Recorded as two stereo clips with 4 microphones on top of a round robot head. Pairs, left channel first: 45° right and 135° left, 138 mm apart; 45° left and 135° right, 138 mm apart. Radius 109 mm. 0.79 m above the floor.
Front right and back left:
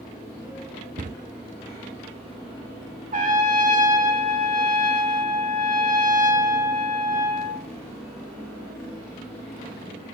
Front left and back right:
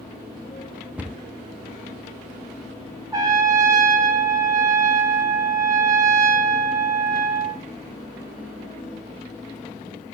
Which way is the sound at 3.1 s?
160° left.